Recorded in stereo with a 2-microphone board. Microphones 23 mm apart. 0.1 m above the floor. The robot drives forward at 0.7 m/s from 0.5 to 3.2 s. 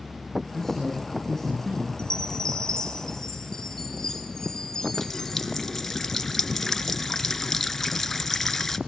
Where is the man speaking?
15° left (ahead or behind), 4.5 m; by 1.9 s 10° left (ahead or behind), 5.5 m.